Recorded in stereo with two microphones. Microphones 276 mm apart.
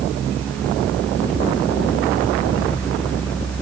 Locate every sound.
Only background noise.